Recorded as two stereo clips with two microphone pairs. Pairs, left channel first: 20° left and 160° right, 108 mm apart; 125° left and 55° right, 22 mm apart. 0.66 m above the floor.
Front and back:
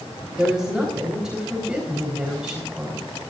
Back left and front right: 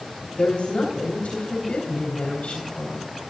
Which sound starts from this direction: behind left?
A woman speaking, at 0.4 s.